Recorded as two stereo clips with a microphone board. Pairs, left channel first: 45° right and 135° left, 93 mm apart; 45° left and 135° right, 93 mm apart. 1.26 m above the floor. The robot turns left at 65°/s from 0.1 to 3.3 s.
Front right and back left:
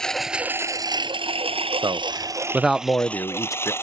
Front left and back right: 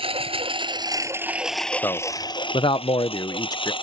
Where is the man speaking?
105° left; by 3.7 s 5° left.